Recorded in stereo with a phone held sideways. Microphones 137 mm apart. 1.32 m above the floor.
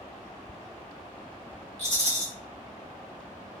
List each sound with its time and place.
1.8 s a rattle: 55° left (ahead or behind), 1.8 m